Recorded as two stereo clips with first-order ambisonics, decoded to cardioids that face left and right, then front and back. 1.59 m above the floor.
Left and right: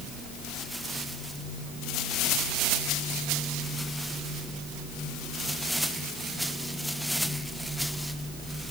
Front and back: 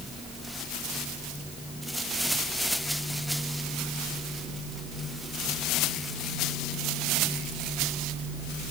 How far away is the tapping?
No tapping in this recording.